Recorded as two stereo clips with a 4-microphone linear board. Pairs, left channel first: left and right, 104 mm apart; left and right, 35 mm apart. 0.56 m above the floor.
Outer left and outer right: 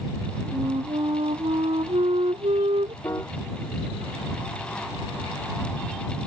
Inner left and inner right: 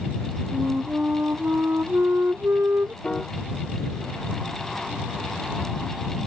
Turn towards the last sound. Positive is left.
turn(degrees=30)  # may be behind; listen again after turning